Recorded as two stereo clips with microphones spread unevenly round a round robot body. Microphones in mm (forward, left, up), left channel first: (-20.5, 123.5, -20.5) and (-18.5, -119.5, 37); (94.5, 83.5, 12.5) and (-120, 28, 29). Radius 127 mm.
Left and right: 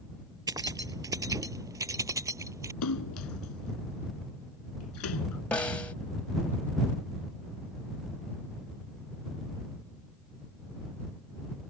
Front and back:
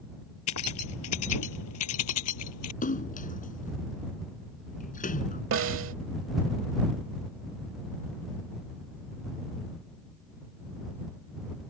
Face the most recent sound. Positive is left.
turn(degrees=170)